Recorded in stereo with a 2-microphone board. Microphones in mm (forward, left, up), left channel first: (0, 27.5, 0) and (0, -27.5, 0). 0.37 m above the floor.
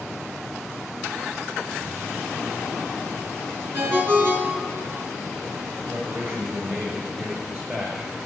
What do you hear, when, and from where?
3.7 s a ringtone: 35° right (ahead or behind), 2.5 m
5.8 s a man speaking: 35° right (ahead or behind), 6 m